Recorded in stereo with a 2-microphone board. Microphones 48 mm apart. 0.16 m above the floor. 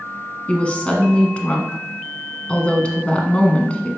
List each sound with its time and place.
0.5 s a woman speaking: 25° left (ahead or behind), 1.3 m